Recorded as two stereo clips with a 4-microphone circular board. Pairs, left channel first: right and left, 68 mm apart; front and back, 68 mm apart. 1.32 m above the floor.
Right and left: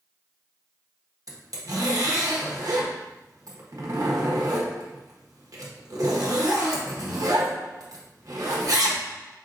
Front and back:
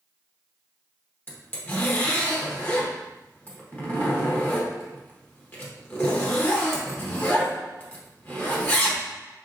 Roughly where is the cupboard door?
I don't hear a cupboard door.